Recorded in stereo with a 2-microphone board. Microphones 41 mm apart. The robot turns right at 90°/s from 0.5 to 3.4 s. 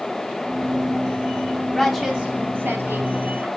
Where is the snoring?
No snoring in this recording.